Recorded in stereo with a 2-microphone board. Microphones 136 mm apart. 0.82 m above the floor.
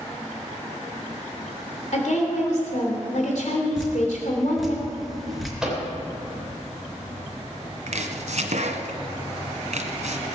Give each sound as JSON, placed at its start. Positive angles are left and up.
{"t": 1.9, "sound": "a woman speaking", "side_deg": 70, "distance_m": 3.0}
{"t": 3.8, "sound": "dripping", "side_deg": 0, "distance_m": 4.5}
{"t": 5.6, "sound": "a microwave", "side_deg": -5, "distance_m": 3.5}
{"t": 7.9, "sound": "chopping", "side_deg": -70, "distance_m": 1.5}